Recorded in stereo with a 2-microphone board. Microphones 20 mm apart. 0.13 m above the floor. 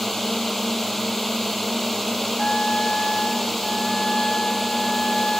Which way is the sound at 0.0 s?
15° left (ahead or behind).